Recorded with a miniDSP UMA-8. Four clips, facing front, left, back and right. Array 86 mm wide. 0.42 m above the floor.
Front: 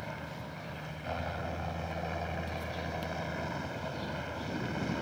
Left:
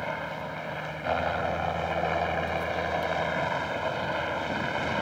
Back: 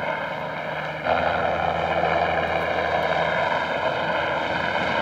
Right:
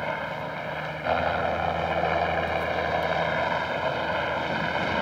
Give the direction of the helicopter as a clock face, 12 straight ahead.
6 o'clock.